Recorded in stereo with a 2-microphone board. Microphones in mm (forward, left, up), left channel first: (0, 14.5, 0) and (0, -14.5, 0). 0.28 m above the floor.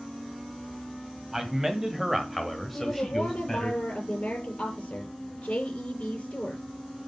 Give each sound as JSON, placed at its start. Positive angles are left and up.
{"t": 1.3, "sound": "a man speaking", "side_deg": -15, "distance_m": 1.8}
{"t": 2.7, "sound": "a woman speaking", "side_deg": 45, "distance_m": 5.5}